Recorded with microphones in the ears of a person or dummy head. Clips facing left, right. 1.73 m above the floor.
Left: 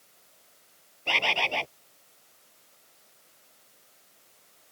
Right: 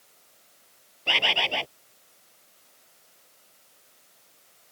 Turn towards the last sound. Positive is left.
turn(degrees=-10)  # may be behind; listen again after turning